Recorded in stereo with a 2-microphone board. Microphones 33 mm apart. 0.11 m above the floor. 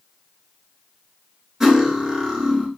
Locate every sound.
1.6 s cutlery clinking: 10° right (ahead or behind), 0.8 m